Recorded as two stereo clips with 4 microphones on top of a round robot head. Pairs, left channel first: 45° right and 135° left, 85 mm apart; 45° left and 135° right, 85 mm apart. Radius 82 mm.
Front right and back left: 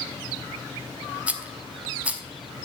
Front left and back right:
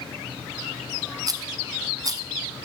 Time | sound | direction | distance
1.3 | a rattle | 155° right | 0.9 m